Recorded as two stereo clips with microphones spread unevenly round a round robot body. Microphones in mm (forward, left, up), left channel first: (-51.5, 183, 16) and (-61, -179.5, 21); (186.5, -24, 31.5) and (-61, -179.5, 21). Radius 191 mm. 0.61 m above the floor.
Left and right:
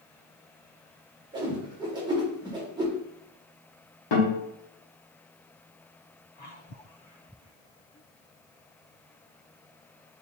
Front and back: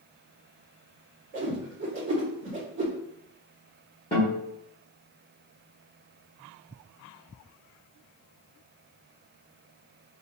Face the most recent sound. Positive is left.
turn(degrees=105)